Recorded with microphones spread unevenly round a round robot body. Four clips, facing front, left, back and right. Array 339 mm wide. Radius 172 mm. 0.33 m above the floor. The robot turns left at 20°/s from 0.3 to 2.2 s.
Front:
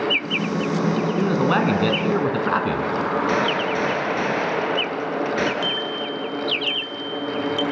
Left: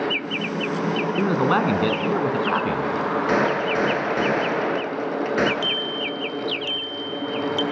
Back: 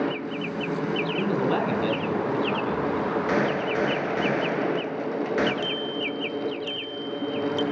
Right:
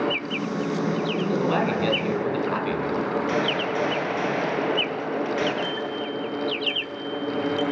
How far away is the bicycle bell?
About 7 m.